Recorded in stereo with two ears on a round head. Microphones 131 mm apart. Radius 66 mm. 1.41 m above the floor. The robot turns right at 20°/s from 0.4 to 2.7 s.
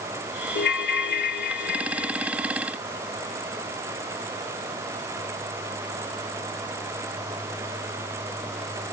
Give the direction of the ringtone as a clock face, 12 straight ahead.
9 o'clock.